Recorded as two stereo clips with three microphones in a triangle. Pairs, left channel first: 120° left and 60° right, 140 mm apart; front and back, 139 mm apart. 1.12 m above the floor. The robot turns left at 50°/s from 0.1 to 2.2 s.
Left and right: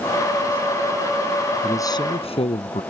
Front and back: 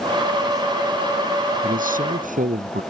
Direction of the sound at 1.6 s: 165° right.